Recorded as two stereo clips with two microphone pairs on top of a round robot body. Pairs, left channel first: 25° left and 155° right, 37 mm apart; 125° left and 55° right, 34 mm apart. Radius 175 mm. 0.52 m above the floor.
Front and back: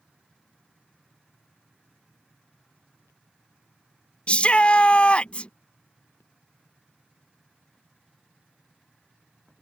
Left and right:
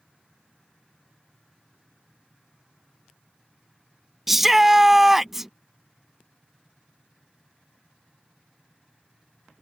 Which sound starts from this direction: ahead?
A shout, at 4.3 s.